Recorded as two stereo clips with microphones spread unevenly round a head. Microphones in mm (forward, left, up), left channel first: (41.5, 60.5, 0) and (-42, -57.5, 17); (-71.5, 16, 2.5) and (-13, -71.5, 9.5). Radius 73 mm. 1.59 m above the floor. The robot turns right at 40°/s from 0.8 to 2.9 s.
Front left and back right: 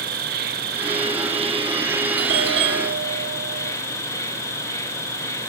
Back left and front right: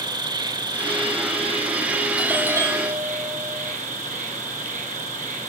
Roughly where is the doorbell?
Behind right.